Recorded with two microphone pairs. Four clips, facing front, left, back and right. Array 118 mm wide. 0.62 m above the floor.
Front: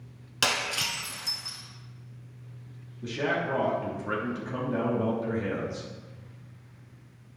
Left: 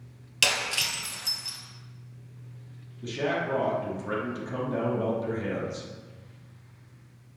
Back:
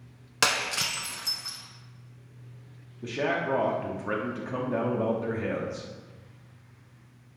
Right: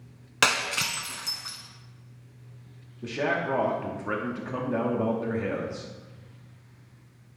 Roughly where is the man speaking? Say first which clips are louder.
Right 1 dB, back 1 dB; behind right.